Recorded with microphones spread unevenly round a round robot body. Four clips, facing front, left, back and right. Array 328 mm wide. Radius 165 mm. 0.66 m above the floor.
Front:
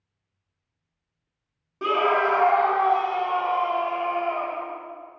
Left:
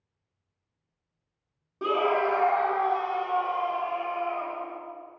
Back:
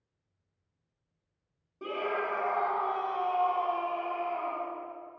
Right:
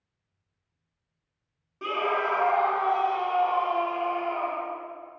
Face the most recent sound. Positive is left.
turn(degrees=-10)